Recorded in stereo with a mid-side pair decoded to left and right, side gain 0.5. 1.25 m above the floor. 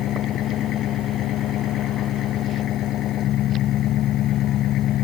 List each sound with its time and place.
0.0 s an engine running: 70° left